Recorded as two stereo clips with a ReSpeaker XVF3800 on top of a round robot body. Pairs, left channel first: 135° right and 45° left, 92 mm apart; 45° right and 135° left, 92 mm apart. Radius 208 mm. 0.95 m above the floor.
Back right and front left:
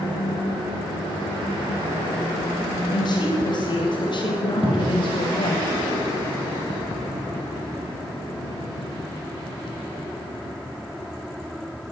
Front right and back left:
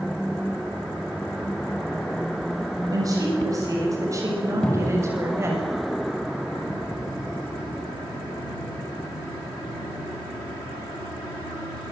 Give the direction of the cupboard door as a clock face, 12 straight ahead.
11 o'clock.